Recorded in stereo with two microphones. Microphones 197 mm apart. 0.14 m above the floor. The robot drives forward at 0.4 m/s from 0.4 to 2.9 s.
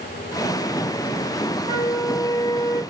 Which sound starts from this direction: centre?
A flute, at 1.7 s.